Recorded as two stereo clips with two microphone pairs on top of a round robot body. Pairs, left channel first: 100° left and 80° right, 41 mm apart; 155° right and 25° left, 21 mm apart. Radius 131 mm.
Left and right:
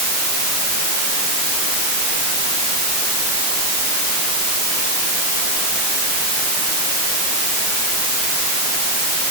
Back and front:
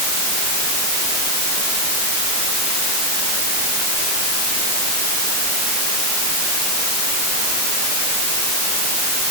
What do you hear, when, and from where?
Only background noise.